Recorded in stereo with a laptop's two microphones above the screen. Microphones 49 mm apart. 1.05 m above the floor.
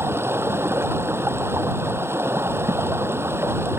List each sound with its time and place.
0.0 s running water: 60° right (ahead or behind)